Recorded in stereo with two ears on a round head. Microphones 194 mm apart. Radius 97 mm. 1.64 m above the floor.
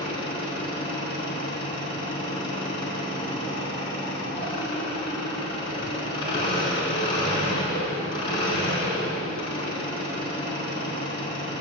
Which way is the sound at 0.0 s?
20° left (ahead or behind).